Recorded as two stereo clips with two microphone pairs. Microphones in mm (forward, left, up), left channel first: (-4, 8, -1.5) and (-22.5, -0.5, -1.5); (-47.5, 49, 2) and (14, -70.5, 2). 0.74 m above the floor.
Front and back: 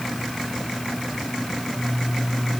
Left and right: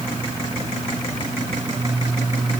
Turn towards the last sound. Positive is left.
No sound to turn to.